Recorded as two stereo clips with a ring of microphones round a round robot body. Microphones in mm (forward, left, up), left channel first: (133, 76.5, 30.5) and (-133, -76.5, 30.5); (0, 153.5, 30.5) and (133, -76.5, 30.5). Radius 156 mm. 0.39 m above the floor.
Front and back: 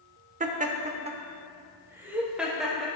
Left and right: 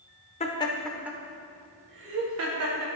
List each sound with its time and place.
0.4 s laughter: 165° left, 1.0 m; by 2.9 s 60° right, 1.5 m